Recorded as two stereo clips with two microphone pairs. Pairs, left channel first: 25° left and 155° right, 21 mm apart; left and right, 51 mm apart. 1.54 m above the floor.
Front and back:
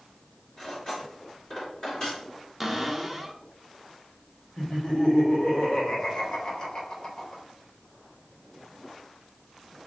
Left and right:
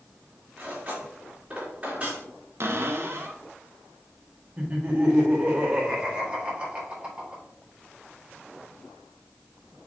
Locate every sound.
0.6 s cutlery clinking: 30° right, 2.5 m
2.6 s a cupboard door: 65° right, 0.6 m
4.6 s laughter: 25° right, 1.5 m